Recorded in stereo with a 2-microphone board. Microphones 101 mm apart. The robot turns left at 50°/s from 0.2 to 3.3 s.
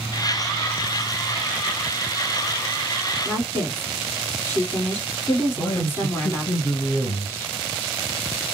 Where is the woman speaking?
20° left (ahead or behind), 1.7 m.